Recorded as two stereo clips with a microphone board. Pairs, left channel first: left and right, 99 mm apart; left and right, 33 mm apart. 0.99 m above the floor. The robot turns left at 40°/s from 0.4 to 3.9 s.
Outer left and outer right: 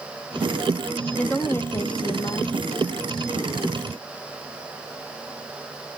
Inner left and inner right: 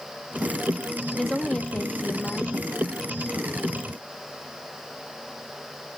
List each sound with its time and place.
1.1 s a woman speaking: 170° left, 0.6 m; by 2.5 s 110° left, 0.6 m